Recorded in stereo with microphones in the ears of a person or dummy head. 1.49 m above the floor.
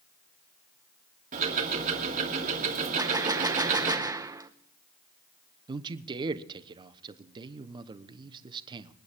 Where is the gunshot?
10° right (ahead or behind), 0.7 m.